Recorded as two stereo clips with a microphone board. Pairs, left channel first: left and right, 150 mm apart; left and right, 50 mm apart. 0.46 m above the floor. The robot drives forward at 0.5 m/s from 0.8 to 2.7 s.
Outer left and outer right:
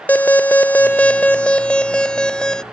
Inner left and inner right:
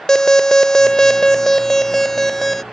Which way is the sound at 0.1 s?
10° left (ahead or behind).